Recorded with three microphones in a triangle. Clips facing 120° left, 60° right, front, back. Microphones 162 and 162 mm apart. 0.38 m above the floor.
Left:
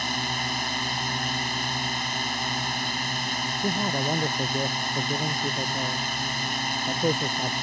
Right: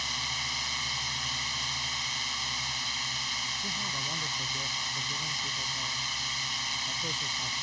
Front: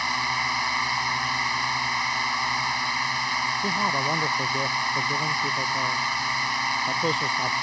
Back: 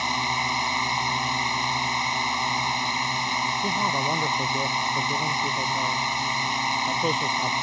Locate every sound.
0.0 s a drone: 115° left
3.6 s a man speaking: 90° left